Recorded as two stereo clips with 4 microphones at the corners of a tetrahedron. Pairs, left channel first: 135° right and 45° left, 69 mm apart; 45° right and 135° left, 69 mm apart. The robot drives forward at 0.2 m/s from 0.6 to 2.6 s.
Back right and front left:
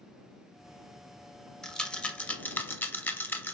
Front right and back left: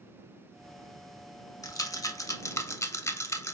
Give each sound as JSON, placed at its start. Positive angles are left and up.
{"t": 1.6, "sound": "a rattle", "azimuth_deg": -55, "distance_m": 0.5}